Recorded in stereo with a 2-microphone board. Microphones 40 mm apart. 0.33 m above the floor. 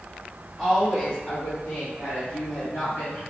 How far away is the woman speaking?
About 1.1 m.